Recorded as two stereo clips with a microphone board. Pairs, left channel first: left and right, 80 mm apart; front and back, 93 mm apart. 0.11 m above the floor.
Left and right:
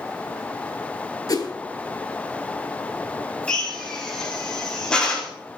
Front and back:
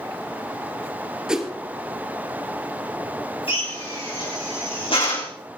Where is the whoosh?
100° left, 2.5 m.